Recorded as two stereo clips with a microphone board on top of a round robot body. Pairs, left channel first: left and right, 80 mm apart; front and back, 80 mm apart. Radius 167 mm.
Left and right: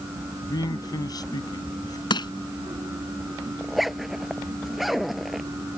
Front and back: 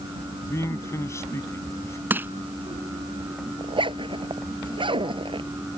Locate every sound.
0.4 s a man speaking: 55° left
2.1 s crushing: 115° left
3.6 s a zipper: straight behind